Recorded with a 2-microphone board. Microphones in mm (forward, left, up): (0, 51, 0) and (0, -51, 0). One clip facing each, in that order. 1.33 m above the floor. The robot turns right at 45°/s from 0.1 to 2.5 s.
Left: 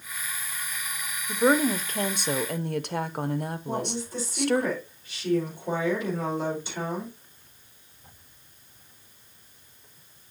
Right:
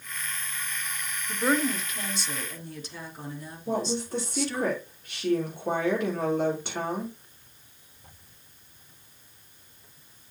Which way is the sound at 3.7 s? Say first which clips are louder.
Right 8 dB; 60° right (ahead or behind).